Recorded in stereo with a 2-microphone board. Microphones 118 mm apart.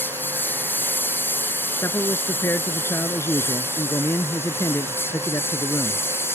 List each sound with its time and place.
0.0 s a lawn mower: 15° left (ahead or behind); by 6.3 s 20° left (ahead or behind)
1.8 s a man speaking: 25° left (ahead or behind)